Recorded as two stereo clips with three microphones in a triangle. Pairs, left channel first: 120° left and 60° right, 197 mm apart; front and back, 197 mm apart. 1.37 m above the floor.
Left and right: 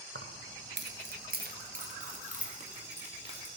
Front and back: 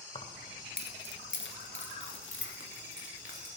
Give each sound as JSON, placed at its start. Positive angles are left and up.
{"t": 0.1, "sound": "keys jangling", "azimuth_deg": -60, "distance_m": 0.8}